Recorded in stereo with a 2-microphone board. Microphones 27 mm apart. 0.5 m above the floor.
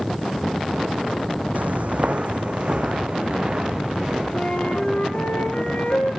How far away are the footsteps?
About 1.4 m.